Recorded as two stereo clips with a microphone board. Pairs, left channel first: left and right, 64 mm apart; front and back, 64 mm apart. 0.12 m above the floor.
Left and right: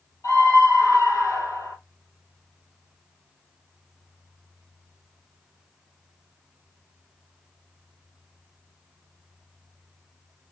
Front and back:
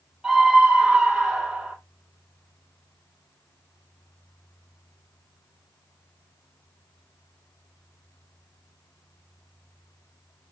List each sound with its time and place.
0.2 s a scream: 95° left, 3 m